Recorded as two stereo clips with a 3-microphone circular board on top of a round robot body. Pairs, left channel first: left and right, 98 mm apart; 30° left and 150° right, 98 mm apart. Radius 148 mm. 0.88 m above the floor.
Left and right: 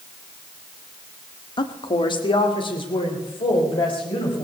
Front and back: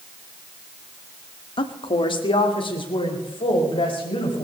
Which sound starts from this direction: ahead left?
A woman speaking, at 1.6 s.